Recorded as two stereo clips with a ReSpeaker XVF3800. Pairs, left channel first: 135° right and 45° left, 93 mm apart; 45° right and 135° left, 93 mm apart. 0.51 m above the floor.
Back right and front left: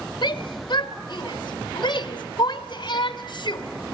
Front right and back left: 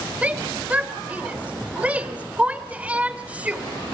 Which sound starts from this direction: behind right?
A shout, at 0.2 s.